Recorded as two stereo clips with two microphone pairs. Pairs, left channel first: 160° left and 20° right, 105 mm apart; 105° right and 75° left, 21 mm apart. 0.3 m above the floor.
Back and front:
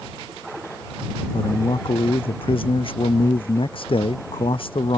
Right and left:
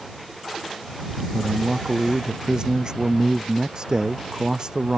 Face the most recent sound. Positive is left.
turn(degrees=125)